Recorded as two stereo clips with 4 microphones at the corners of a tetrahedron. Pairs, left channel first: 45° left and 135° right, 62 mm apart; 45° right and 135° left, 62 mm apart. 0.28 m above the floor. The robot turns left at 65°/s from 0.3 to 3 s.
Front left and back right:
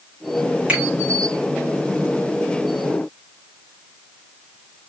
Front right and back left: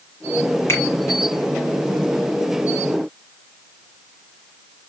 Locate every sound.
0.7 s a finger snap: 70° right, 2.0 m; by 0.8 s 75° right, 2.0 m